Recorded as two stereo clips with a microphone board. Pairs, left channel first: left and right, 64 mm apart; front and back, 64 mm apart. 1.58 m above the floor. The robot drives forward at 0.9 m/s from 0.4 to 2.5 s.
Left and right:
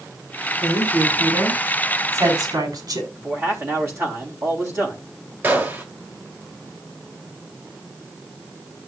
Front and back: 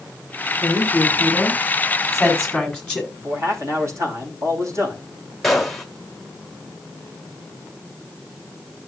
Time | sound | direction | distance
0.6 | a woman speaking | 65° right | 4.5 m
3.1 | a man speaking | 140° right | 3 m
5.4 | a gunshot | 85° right | 1.5 m